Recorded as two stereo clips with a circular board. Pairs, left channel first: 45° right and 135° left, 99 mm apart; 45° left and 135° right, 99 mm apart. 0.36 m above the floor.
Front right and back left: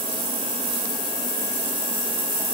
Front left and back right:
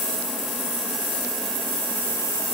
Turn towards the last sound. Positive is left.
No sound to turn to.